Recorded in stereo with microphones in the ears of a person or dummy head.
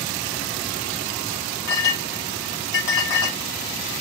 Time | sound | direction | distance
1.7 | a clink | 65° left (ahead or behind) | 1.2 m